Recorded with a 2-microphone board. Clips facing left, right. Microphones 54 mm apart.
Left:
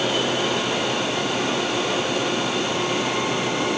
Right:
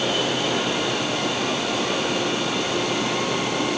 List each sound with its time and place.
Only background noise.